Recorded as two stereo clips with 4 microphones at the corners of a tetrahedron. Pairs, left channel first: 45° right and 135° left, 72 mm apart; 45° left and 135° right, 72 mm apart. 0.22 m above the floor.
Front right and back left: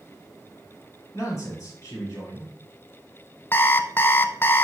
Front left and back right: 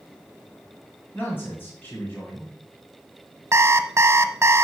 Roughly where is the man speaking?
Ahead.